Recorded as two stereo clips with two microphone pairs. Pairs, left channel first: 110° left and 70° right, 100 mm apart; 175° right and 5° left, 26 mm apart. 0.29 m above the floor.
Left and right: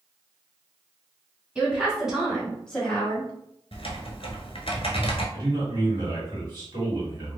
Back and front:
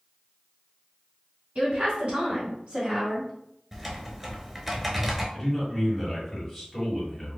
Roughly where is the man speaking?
Right.